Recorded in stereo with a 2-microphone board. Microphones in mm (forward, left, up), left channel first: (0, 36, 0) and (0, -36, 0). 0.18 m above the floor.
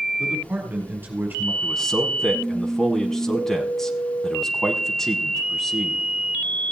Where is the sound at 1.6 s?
5° left (ahead or behind), 1.1 m.